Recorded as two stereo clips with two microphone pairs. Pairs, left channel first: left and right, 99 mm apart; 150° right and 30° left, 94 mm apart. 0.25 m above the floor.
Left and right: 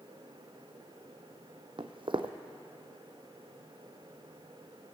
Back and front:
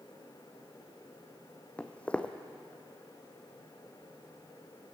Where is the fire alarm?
No fire alarm in this recording.